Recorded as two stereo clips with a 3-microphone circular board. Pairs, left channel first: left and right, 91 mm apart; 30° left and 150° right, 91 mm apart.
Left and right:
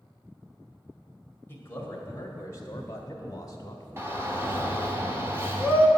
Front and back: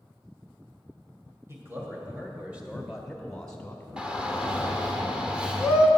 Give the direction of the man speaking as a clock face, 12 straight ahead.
7 o'clock.